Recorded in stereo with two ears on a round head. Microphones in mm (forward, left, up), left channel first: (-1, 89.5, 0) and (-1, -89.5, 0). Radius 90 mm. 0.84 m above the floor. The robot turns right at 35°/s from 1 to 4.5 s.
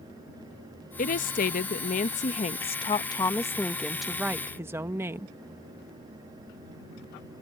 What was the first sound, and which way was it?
A woman speaking, 75° left.